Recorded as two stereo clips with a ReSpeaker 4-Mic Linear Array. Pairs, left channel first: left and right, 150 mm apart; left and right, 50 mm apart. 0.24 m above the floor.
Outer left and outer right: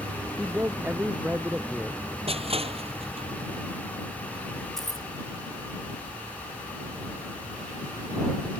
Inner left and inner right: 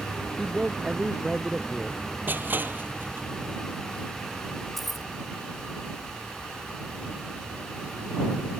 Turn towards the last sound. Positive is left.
turn(degrees=5)  # may be behind; listen again after turning